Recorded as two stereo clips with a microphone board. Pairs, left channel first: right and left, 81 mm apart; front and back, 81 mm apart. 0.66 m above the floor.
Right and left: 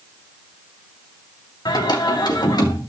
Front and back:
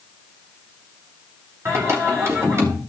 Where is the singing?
125° right, 3 m.